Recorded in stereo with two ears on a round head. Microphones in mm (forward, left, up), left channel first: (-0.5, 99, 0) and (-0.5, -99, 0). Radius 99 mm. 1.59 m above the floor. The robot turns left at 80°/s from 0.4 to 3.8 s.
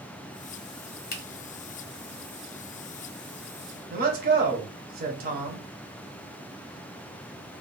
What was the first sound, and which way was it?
A finger snap, 45° left (ahead or behind).